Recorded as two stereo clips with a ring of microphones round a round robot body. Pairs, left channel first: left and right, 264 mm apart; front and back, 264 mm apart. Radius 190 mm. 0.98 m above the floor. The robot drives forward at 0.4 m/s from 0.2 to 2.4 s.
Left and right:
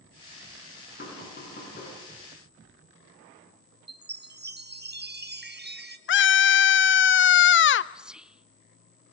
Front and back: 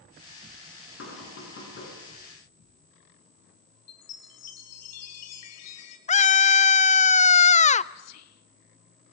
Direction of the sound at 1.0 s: 40° left.